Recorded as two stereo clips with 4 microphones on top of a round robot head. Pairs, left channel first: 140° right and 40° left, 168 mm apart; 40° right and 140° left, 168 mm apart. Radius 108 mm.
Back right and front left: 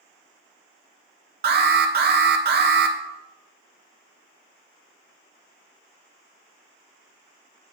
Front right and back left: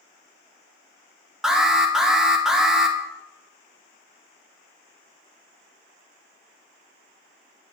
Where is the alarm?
55° left, 1.2 m.